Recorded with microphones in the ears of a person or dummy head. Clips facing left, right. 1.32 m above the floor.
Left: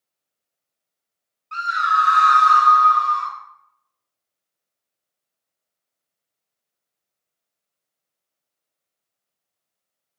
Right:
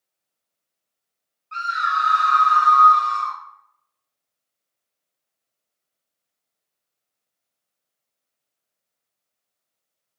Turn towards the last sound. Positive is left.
turn(degrees=-10)  # may be behind; listen again after turning